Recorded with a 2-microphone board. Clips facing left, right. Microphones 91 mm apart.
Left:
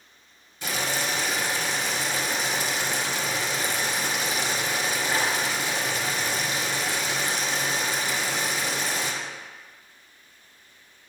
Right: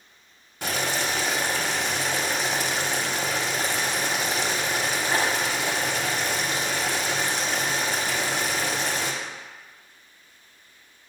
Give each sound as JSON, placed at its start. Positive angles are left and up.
{"t": 0.6, "sound": "boiling", "side_deg": -65, "distance_m": 0.6}